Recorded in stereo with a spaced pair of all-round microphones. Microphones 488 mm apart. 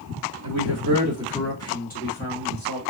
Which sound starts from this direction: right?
A man speaking, at 0.4 s.